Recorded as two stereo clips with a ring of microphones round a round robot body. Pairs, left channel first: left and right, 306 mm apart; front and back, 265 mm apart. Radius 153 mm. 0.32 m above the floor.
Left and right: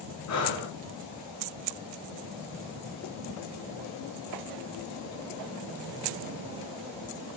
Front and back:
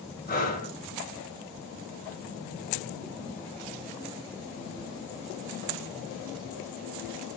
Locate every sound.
0.3 s breathing: 55° left, 4 m